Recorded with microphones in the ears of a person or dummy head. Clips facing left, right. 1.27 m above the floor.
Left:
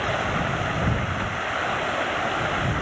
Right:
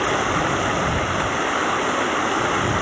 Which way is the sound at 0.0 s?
60° right (ahead or behind).